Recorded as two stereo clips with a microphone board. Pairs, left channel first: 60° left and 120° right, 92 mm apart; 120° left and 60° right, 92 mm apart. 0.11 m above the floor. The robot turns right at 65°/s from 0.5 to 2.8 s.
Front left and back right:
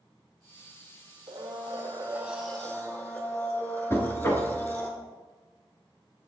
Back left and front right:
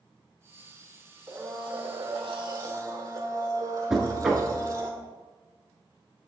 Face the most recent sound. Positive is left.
turn(degrees=25)